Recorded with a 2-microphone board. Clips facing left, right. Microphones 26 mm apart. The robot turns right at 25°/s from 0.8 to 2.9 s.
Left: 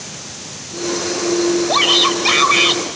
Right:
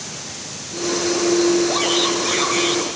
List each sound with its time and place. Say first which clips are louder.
1.7 s a shout: left 5 dB; 60° left (ahead or behind), 3.5 m; by 2.8 s 70° left (ahead or behind), 3.5 m